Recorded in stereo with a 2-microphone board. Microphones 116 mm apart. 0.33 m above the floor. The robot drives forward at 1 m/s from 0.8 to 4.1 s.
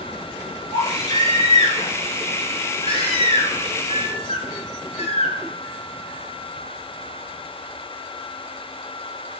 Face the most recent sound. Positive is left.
turn(degrees=75)  # may be behind; listen again after turning